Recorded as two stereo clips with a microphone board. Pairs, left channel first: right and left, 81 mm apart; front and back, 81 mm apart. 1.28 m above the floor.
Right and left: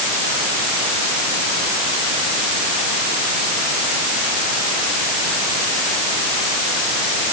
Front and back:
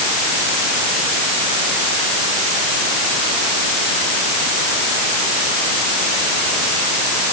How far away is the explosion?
I don't hear an explosion.